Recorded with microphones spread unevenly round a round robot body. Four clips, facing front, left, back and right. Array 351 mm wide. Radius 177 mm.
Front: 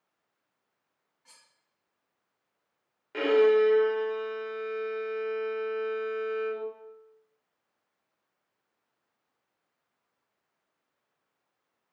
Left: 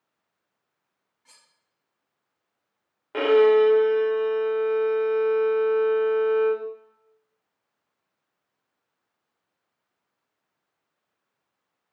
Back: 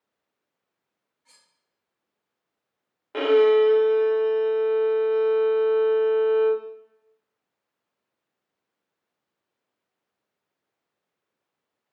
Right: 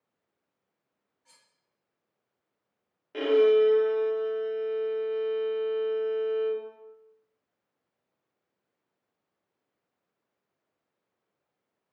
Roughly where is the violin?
Behind left.